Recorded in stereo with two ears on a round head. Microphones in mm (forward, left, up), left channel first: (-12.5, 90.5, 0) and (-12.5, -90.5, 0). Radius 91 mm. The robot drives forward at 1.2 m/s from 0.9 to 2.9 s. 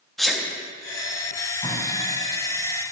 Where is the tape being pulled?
25° left (ahead or behind), 1.9 m.